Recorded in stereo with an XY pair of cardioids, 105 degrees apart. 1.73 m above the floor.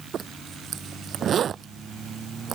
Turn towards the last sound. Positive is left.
turn(degrees=-55)